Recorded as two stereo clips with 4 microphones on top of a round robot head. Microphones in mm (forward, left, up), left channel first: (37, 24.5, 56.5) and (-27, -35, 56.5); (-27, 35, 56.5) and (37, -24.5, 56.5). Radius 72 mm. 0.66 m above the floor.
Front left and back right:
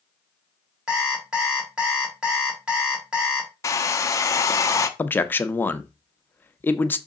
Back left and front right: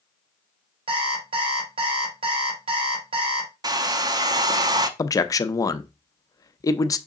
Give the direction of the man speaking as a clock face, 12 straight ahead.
9 o'clock.